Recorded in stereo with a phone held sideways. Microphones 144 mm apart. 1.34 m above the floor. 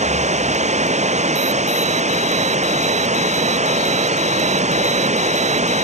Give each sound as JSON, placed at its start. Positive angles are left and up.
{"t": 0.0, "sound": "running water", "side_deg": -50}